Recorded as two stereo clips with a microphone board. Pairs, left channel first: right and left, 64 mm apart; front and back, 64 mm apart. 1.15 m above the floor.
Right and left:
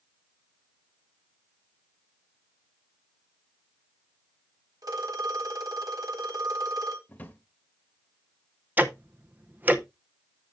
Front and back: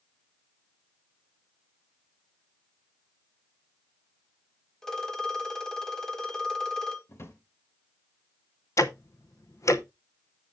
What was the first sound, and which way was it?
A phone ringing, 80° left.